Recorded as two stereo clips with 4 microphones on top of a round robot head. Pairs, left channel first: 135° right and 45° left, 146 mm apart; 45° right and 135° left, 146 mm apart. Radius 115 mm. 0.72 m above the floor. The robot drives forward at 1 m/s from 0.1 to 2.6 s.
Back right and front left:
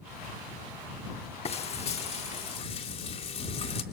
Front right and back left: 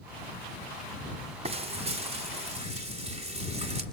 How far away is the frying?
About 2 m.